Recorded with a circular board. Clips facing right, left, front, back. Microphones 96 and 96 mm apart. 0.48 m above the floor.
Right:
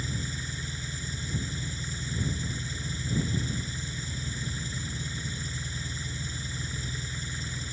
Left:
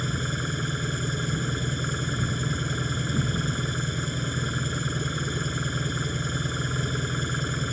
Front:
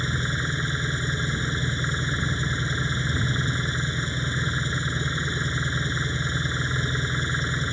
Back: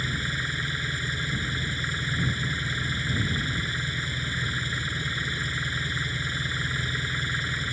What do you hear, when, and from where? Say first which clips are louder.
0.0 s an engine running: left 7 dB, front 3 dB; 65° left